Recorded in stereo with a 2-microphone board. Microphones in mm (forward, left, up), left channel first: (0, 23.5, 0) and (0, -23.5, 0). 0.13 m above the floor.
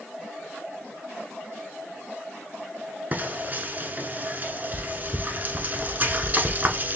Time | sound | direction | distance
3.1 | frying | 35° right (ahead or behind) | 0.9 m